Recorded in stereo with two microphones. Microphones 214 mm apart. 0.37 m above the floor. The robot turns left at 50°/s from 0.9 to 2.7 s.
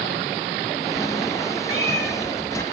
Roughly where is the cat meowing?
Right.